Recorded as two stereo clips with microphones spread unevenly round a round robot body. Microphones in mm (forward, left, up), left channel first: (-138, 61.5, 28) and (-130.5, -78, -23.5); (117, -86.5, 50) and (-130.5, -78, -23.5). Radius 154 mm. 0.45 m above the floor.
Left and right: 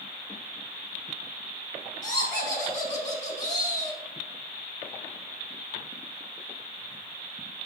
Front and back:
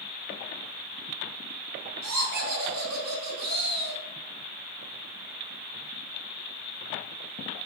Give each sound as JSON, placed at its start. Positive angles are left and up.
{"t": 2.0, "sound": "laughter", "azimuth_deg": 165, "distance_m": 3.0}